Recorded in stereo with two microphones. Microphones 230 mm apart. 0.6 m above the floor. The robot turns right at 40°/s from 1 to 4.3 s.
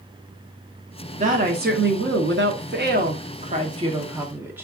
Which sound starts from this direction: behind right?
A woman speaking, at 1.2 s.